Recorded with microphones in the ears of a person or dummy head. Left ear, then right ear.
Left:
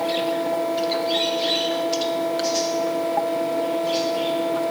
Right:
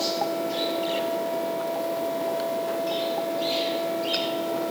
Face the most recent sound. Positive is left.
No sound to turn to.